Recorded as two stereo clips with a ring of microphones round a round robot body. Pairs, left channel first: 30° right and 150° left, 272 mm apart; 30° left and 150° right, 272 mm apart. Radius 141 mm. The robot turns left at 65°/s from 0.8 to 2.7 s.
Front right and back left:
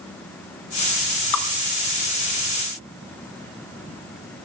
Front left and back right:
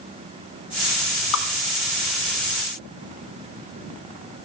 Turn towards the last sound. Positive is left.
turn(degrees=-95)